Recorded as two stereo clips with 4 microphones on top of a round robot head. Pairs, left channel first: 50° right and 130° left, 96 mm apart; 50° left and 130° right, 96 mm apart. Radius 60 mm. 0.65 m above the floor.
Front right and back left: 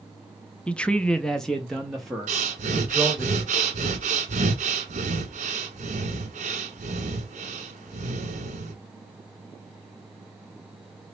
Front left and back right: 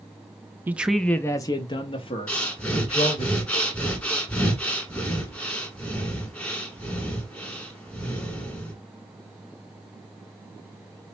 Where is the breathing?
125° left, 1.1 m.